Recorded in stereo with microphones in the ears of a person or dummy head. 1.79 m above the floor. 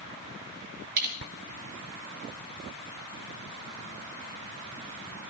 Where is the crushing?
45° right (ahead or behind), 8 m.